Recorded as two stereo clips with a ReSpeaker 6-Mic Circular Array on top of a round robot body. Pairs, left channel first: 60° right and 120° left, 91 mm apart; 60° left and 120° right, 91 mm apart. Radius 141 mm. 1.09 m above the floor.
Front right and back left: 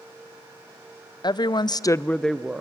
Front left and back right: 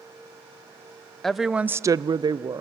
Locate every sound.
1.2 s a woman speaking: 25° right, 0.8 m; by 2.6 s 160° right, 0.9 m